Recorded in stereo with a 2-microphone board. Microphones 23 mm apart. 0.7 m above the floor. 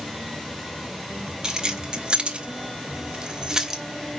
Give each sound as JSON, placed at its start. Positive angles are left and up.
{"t": 1.4, "sound": "keys jangling", "side_deg": -30, "distance_m": 1.7}